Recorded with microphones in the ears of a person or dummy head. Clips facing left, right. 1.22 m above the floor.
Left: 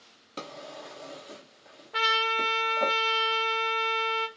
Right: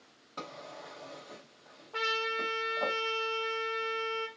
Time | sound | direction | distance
0.4 | a drawer | 30° left (ahead or behind) | 0.7 m
1.9 | a trumpet | 20° left (ahead or behind) | 0.7 m